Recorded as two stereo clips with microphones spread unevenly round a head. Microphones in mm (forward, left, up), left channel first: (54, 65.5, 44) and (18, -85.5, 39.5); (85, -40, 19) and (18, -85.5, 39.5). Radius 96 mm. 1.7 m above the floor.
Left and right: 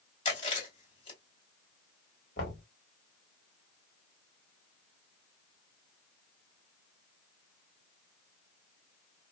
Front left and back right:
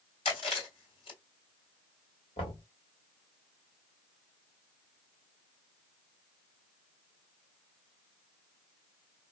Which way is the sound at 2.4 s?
65° left.